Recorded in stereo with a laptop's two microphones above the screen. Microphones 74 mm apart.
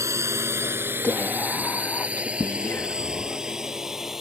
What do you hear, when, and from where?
0.0 s a drone: 40° right (ahead or behind); by 4.2 s 5° right (ahead or behind)
1.0 s whispering: 30° left (ahead or behind)